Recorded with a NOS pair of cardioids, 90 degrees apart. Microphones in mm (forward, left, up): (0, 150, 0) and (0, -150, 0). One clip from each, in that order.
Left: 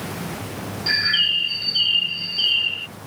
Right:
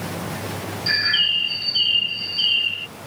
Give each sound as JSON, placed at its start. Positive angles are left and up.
{"t": 0.9, "sound": "a bird", "azimuth_deg": 0}